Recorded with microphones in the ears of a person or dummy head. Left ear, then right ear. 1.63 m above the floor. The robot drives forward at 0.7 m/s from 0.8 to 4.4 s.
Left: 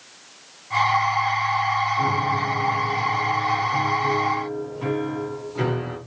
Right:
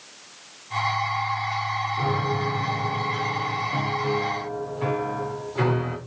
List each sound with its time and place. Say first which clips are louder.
2.0 s a piano: left 4 dB; 15° right (ahead or behind), 2.5 m; by 6.0 s 10° right (ahead or behind), 4 m